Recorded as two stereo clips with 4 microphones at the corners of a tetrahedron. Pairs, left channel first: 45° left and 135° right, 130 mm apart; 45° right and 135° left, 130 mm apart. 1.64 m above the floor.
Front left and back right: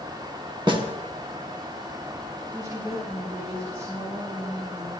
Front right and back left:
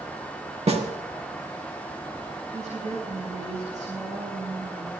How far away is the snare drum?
About 1.3 m.